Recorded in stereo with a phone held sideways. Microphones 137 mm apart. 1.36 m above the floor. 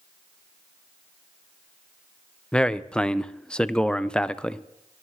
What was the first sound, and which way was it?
A man speaking, 5° left (ahead or behind).